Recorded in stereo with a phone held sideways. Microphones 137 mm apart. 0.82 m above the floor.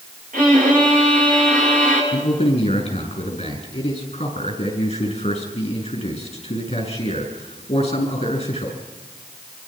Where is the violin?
85° right, 8.5 m.